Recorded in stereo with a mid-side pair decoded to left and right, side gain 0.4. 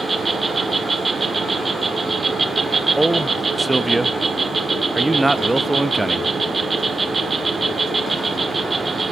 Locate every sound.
0.0 s an insect: 30° right, 1.5 m
3.0 s a man speaking: 15° right, 0.8 m